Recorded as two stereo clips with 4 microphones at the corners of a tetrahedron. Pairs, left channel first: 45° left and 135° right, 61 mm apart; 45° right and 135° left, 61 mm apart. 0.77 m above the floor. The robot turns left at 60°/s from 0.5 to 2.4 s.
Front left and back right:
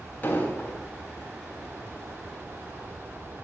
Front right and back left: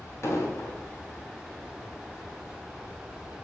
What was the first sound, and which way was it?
An explosion, 10° right.